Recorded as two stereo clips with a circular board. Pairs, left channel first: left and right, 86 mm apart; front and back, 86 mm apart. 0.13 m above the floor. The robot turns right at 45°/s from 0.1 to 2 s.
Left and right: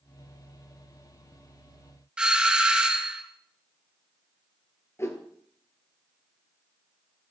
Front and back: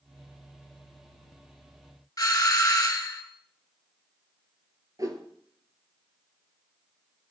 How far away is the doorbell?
About 1.9 m.